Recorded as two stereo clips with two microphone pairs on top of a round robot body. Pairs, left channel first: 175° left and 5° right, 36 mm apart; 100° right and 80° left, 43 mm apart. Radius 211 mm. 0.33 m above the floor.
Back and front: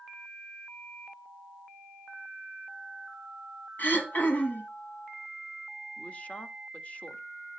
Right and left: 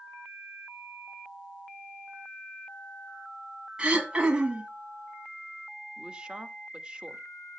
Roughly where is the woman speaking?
Behind left.